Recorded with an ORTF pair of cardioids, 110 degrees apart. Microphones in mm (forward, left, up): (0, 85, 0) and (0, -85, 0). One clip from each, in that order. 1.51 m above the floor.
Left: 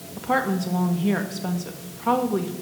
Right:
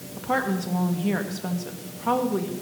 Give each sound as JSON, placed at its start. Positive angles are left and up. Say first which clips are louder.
{"t": 0.2, "sound": "a woman speaking", "louder": "left 2 dB", "azimuth_deg": 10, "distance_m": 2.0}